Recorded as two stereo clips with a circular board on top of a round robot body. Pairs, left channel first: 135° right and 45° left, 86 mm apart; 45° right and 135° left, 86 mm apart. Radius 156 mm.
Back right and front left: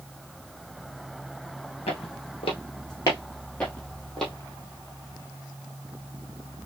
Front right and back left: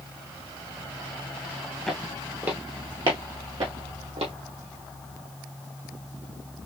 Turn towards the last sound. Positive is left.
turn(degrees=140)